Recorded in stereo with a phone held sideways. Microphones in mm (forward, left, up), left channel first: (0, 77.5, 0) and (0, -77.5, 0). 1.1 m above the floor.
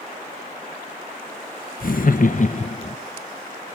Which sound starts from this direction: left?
Laughter, at 1.8 s.